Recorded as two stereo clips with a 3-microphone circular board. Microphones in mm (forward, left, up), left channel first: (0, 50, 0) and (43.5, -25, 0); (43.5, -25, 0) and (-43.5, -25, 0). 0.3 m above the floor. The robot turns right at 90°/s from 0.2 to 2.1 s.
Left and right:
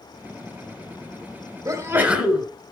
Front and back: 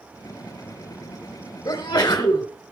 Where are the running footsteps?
I don't hear running footsteps.